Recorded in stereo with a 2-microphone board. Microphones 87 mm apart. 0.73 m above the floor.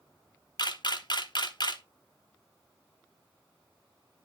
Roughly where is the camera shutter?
Left.